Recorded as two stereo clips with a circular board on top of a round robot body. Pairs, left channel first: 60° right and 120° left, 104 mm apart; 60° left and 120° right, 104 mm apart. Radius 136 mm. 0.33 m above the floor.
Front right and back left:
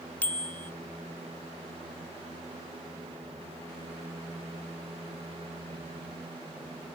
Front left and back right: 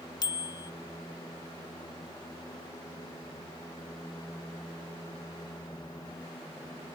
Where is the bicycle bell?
15° left.